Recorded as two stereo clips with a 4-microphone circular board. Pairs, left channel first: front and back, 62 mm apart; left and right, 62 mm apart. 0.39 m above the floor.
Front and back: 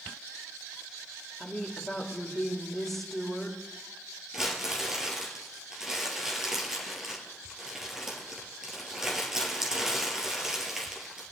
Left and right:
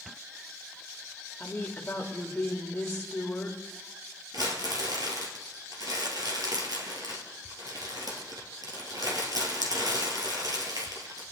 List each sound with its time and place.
1.4 s a woman speaking: 80° left, 1.4 m
4.3 s crumpling: 95° right, 2.5 m